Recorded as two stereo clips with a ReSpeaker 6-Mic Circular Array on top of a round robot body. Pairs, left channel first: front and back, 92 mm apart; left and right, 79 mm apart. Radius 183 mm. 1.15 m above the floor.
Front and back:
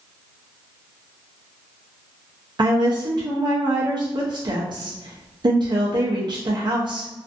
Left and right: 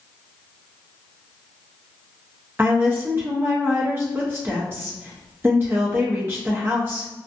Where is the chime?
No chime in this recording.